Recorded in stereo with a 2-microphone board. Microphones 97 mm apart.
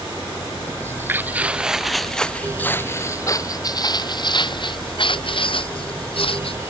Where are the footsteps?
25° right (ahead or behind); by 6.7 s 70° left (ahead or behind).